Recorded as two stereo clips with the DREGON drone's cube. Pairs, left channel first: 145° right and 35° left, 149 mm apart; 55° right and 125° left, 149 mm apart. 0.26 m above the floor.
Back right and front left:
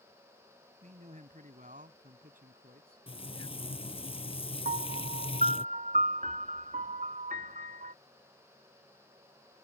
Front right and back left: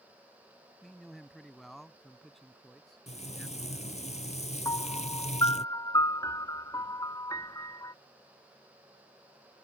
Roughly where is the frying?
Right.